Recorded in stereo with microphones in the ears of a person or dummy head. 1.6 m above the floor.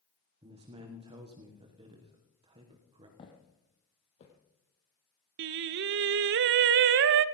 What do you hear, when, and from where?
0.4 s a man speaking: 30° right (ahead or behind), 1.4 m
3.2 s footsteps: 30° left (ahead or behind), 3.5 m; by 4.3 s 40° left (ahead or behind), 4 m
5.4 s singing: 65° right (ahead or behind), 0.6 m